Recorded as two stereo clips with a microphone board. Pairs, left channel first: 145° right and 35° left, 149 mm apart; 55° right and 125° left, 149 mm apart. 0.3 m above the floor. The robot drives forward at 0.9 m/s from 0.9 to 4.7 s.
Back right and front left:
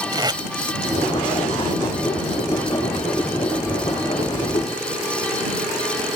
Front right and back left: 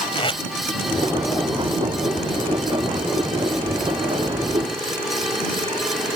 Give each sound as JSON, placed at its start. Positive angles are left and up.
{"t": 0.1, "sound": "tape being pulled", "azimuth_deg": -15}